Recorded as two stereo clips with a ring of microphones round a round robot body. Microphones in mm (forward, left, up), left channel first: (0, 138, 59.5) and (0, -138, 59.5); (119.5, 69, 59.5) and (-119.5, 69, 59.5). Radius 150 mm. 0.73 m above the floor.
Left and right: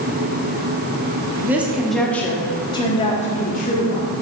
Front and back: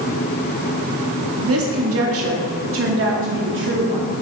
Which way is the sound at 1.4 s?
170° right.